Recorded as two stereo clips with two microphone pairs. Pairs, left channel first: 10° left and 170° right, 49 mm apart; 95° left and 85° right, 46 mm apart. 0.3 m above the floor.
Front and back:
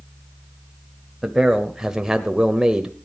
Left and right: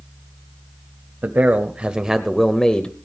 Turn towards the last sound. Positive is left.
turn(degrees=130)